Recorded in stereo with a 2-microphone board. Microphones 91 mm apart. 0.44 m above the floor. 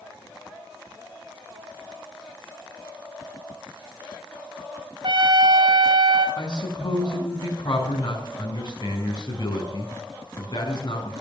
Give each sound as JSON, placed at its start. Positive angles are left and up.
{"t": 5.0, "sound": "a trumpet", "side_deg": -60, "distance_m": 1.7}
{"t": 6.4, "sound": "a man speaking", "side_deg": 50, "distance_m": 5.0}